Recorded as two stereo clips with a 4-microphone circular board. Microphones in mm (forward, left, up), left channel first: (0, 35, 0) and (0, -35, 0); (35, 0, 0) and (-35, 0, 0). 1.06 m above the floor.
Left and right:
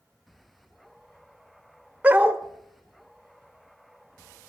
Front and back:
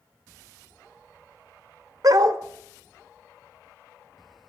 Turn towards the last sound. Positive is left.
turn(degrees=-155)